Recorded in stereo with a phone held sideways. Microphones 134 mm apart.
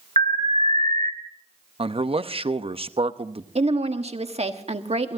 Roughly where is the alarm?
Right.